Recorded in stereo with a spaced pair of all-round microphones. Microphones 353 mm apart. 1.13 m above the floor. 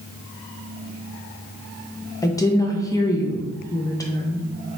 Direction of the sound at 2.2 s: 10° left (ahead or behind).